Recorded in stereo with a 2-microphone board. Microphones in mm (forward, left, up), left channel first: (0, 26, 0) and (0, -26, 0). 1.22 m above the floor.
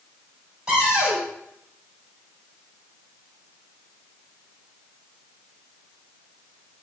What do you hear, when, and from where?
0.7 s a cupboard door: 15° right (ahead or behind), 2.0 m